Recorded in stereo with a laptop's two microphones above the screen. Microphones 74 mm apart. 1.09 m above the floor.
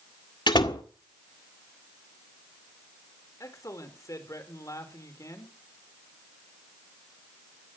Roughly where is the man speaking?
Left.